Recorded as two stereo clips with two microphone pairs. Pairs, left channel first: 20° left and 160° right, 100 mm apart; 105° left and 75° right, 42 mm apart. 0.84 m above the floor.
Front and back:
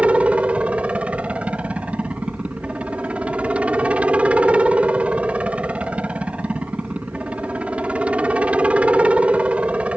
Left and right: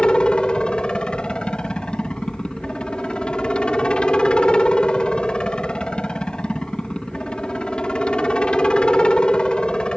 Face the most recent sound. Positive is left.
turn(degrees=140)